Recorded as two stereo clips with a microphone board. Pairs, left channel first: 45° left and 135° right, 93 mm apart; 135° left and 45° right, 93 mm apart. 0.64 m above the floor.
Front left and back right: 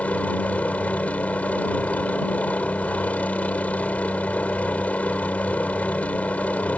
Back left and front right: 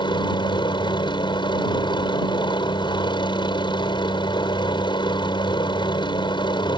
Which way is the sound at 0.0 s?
115° left.